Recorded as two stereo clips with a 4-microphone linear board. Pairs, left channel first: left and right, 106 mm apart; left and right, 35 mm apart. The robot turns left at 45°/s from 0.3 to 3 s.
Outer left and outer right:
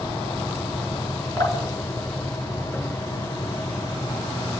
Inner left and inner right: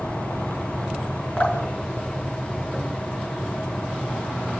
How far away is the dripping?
About 3.5 m.